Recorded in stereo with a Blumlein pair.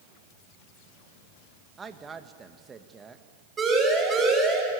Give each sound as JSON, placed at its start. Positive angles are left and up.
{"t": 1.8, "sound": "a woman speaking", "azimuth_deg": -15, "distance_m": 1.9}
{"t": 3.6, "sound": "a siren", "azimuth_deg": -20, "distance_m": 8.0}